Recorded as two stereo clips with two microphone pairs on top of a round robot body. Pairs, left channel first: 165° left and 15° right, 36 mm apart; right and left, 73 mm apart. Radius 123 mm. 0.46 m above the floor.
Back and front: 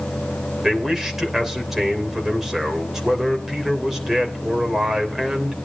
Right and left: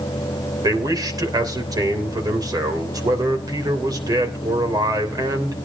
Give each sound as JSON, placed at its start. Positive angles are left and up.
{"t": 0.6, "sound": "a man speaking", "azimuth_deg": 70, "distance_m": 3.0}